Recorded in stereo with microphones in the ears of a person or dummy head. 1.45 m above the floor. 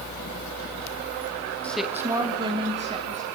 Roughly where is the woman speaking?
Centre.